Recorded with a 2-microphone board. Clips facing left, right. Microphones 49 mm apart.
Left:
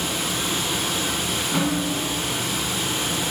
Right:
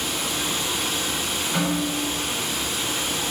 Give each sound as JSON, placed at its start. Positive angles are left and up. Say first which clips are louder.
{"t": 0.0, "sound": "running water", "louder": "left 1 dB", "side_deg": 60, "distance_m": 1.2}
{"t": 1.5, "sound": "a snare drum", "louder": "even", "side_deg": 15, "distance_m": 1.4}